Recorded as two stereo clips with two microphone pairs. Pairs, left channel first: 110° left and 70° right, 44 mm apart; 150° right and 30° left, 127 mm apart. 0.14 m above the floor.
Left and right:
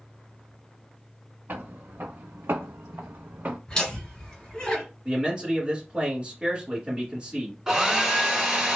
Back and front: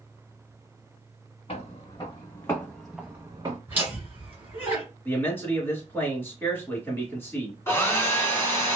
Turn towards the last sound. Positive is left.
turn(degrees=-125)